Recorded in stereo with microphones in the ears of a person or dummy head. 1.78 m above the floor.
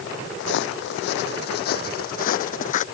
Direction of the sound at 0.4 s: 65° left (ahead or behind).